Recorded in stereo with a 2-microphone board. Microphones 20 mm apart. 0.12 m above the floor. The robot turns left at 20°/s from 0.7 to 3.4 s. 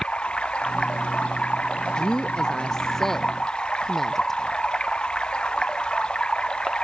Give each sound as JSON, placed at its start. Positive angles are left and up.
{"t": 0.0, "sound": "running water", "azimuth_deg": 115}
{"t": 1.9, "sound": "a woman speaking", "side_deg": 45}